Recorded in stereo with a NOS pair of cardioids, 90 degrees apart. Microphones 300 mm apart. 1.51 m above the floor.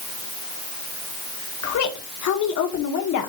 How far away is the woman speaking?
About 1.8 m.